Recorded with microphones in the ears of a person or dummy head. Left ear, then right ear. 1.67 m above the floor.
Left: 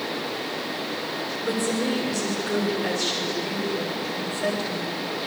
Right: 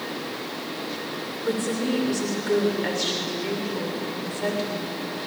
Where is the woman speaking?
10° right (ahead or behind), 6 m.